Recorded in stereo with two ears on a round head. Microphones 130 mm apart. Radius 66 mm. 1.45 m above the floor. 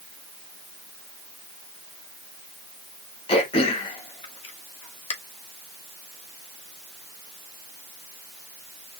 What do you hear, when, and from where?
3.3 s throat clearing: 40° left (ahead or behind), 1.1 m